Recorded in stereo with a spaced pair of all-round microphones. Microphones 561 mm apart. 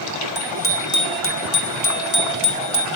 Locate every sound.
0.3 s a bicycle bell: 20° left (ahead or behind), 2 m; by 2.9 s 65° left (ahead or behind), 2 m